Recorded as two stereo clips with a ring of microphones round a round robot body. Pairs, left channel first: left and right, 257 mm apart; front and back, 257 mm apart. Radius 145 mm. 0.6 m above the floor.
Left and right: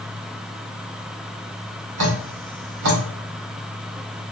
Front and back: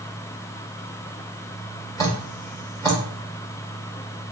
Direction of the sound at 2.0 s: 80° right.